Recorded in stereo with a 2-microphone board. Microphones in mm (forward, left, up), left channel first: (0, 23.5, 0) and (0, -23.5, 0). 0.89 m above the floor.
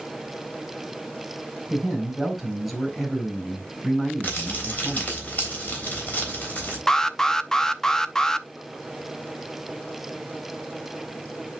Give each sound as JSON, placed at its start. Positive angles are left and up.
{"t": 1.7, "sound": "a man speaking", "side_deg": -5, "distance_m": 4.0}
{"t": 4.2, "sound": "crumpling", "side_deg": 35, "distance_m": 3.5}
{"t": 6.9, "sound": "an alarm", "side_deg": 10, "distance_m": 0.5}